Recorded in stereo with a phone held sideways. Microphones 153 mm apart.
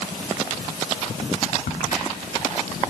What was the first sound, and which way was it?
A crack, 70° left (ahead or behind).